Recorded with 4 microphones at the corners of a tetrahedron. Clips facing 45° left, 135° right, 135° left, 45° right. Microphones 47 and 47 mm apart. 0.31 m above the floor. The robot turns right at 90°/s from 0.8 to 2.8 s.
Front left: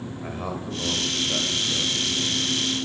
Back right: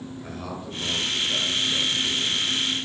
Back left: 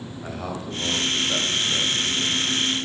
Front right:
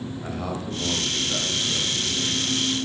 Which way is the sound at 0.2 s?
50° left.